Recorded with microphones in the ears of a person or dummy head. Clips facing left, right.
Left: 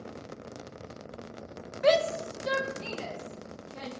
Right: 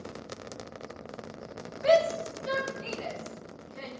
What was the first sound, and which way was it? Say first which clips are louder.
A shout: right 1 dB; 75° left (ahead or behind).